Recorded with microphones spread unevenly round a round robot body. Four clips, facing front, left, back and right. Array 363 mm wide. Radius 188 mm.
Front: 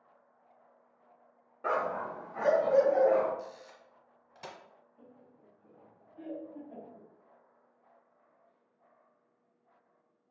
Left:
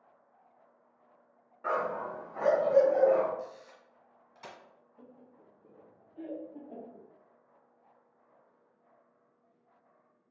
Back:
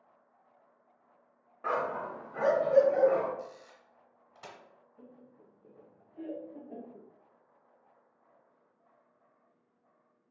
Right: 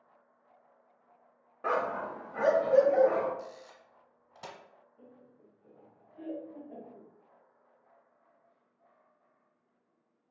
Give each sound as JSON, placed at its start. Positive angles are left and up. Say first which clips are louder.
{"t": 1.6, "sound": "a dog barking", "louder": "right 1 dB, front 1 dB", "azimuth_deg": -70, "distance_m": 0.5}
{"t": 3.4, "sound": "a camera shutter", "louder": "left 2 dB, even", "azimuth_deg": -65, "distance_m": 1.1}
{"t": 5.0, "sound": "laughter", "louder": "left 2 dB, back 4 dB", "azimuth_deg": 150, "distance_m": 0.7}